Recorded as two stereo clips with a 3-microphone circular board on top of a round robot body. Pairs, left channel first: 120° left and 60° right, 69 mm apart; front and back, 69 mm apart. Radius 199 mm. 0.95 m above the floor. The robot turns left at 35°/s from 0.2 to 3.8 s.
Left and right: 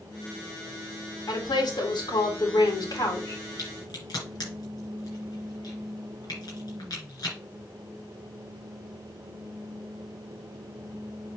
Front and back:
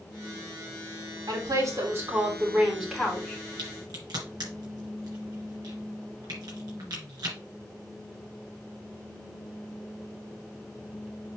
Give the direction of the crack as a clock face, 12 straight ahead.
7 o'clock.